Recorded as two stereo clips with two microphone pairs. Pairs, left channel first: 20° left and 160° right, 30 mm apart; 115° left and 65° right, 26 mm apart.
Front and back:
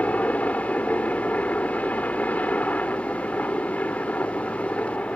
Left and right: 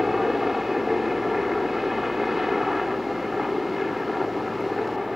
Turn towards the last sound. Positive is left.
turn(degrees=15)